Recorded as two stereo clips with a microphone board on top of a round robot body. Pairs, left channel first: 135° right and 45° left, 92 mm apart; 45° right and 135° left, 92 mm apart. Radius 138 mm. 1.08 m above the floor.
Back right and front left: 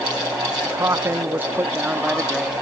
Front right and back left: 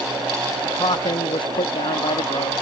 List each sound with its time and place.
0.6 s a man speaking: 10° right; by 2.5 s 40° right